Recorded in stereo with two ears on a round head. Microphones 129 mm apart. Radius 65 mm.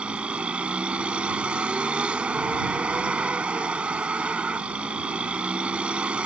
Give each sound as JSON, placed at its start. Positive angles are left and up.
{"t": 0.0, "sound": "a vehicle", "side_deg": -10}